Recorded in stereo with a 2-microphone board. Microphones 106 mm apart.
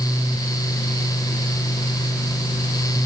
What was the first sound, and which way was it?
Only background noise.